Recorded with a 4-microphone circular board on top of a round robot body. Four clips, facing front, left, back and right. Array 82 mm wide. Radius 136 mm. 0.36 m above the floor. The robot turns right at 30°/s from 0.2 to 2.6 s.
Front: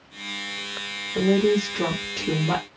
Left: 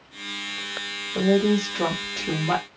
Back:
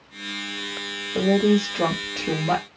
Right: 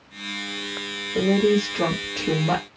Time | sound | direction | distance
1.1 | a woman speaking | 170° right | 1.7 m